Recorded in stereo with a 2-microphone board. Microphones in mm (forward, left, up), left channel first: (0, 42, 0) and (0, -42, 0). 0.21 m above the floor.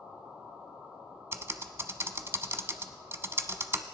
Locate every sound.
1.3 s typing on a keyboard: 30° right (ahead or behind), 0.6 m